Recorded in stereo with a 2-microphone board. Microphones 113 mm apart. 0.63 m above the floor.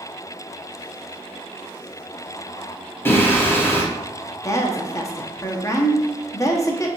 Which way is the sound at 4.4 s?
30° left (ahead or behind).